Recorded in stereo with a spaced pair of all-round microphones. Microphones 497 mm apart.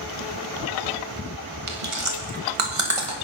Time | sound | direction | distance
1.7 | chewing | 80° right | 2.0 m